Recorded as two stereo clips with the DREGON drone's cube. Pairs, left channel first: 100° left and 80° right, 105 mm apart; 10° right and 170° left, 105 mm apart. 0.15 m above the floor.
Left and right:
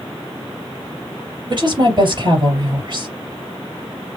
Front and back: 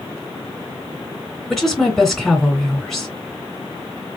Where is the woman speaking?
95° right, 2.5 m.